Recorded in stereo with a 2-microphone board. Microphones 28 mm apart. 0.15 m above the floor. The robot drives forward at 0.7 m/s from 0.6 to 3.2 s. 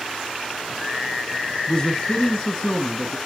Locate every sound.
1.7 s a man speaking: 30° left (ahead or behind), 1.2 m; by 3.2 s 20° left (ahead or behind), 1.6 m